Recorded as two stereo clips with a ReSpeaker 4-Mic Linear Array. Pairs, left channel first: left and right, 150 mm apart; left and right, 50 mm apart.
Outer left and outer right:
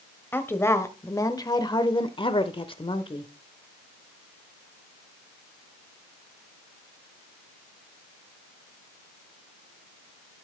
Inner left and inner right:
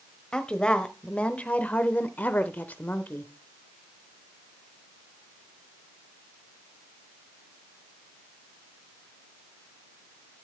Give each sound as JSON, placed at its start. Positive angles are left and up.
{"t": 0.3, "sound": "a woman speaking", "side_deg": 15, "distance_m": 1.4}